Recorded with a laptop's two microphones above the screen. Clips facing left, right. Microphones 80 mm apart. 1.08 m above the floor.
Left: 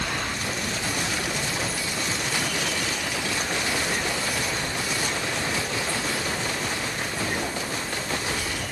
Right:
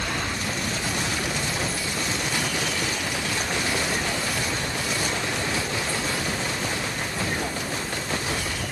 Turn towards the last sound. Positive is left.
No sound to turn to.